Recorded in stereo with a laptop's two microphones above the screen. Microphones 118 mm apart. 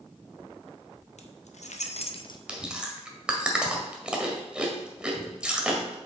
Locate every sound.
1.2 s keys jangling: 75° left (ahead or behind), 1.0 m; by 2.4 s 35° left (ahead or behind), 0.6 m
2.5 s chewing: 10° right (ahead or behind), 1.8 m